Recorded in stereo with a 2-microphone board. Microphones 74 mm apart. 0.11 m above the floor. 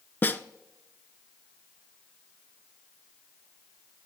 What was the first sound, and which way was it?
A snare drum, 25° left (ahead or behind).